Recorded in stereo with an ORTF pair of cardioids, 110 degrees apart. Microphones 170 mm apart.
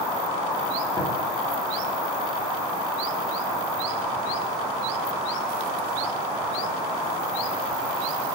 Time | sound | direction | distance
1.0 | tapping | 25° left | 1.2 m